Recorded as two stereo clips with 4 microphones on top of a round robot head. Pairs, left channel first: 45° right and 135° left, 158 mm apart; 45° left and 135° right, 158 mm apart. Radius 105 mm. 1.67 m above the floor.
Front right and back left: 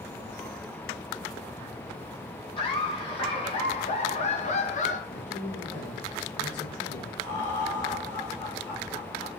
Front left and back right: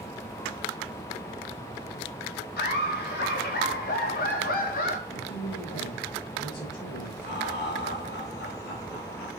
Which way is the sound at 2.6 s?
15° left.